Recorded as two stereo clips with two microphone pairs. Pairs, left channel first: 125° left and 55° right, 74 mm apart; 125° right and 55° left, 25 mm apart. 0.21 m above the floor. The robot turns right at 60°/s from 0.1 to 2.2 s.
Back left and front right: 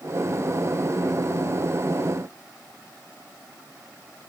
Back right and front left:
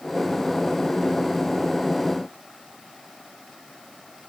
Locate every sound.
Only background noise.